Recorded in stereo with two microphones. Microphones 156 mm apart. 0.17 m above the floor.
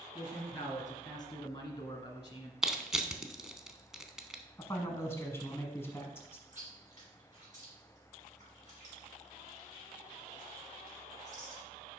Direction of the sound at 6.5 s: 55° right (ahead or behind).